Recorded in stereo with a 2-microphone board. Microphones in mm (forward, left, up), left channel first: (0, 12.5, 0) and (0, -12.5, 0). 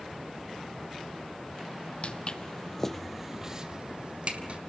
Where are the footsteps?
45° left (ahead or behind), 1.5 m; by 4.6 s 55° right (ahead or behind), 2 m.